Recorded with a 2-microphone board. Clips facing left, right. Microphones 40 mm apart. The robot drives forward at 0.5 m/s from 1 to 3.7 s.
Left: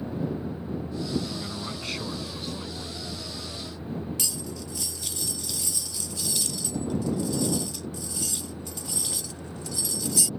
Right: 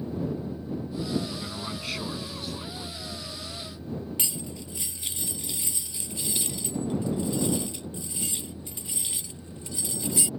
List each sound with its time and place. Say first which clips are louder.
0.0 s a vehicle: left 1 dB; 55° left (ahead or behind); by 10.4 s 45° left (ahead or behind)
1.3 s a man speaking: left 1 dB; 5° right (ahead or behind)
4.2 s cutlery clinking: left 1 dB; 30° right (ahead or behind)